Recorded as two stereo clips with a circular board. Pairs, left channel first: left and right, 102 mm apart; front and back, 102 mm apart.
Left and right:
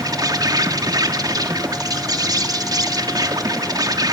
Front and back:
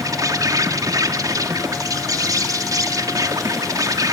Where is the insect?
130° right, 1.3 m.